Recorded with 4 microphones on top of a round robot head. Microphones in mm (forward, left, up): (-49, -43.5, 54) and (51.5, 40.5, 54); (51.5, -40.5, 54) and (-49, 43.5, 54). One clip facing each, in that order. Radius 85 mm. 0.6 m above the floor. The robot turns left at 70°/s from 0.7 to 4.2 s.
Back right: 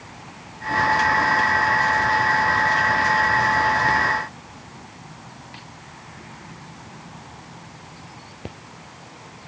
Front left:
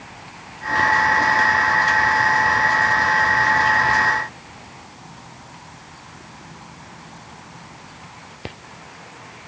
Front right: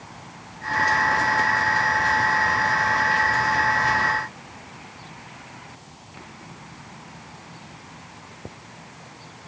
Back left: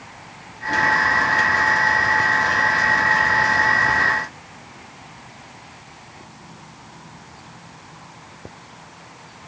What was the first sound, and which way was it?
Only background noise.